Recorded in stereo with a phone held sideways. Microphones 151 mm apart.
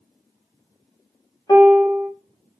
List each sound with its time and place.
1.5 s a piano: 25° left (ahead or behind), 0.8 m